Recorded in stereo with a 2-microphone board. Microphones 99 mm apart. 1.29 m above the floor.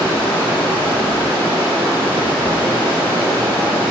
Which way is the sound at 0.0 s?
25° left (ahead or behind).